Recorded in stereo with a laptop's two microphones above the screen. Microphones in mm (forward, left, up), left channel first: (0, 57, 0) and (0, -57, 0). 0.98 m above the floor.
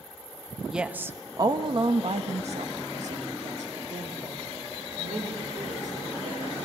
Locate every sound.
0.7 s a woman speaking: 5° right (ahead or behind), 1.3 m; by 6.5 s 80° right, 5 m